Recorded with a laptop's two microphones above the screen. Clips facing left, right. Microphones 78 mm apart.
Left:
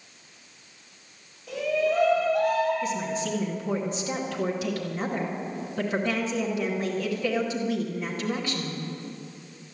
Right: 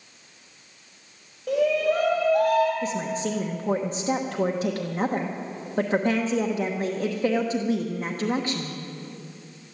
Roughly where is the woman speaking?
Right.